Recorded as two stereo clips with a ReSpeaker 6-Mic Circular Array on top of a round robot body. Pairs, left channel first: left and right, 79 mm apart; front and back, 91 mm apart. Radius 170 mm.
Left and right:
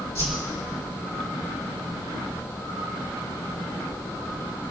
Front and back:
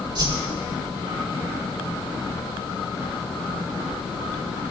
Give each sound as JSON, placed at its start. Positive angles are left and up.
{"t": 0.1, "sound": "a whoosh", "azimuth_deg": 140, "distance_m": 4.5}